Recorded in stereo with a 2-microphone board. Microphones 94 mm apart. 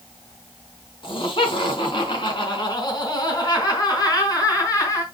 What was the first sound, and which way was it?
Laughter, 65° left (ahead or behind).